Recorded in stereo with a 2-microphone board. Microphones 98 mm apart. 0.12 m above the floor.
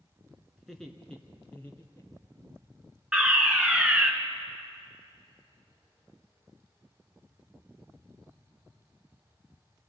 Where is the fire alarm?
10° right (ahead or behind), 2 m.